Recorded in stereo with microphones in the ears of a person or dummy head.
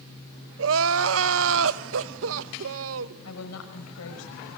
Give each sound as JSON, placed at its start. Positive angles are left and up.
{"t": 0.6, "sound": "crying", "side_deg": -80, "distance_m": 0.8}
{"t": 3.2, "sound": "a woman speaking", "side_deg": 80, "distance_m": 6.0}